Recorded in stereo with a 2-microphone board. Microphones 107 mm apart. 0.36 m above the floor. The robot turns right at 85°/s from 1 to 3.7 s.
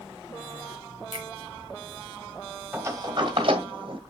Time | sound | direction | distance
1.1 | a finger snap | 60° right (ahead or behind) | 4.5 m
2.7 | a sliding door | 15° right (ahead or behind) | 1.8 m